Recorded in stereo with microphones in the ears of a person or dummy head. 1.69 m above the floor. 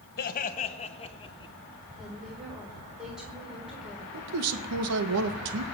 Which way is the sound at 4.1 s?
75° right (ahead or behind).